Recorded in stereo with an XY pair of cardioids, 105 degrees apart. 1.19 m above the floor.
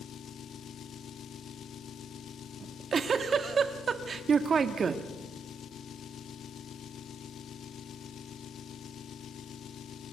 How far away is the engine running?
About 0.7 m.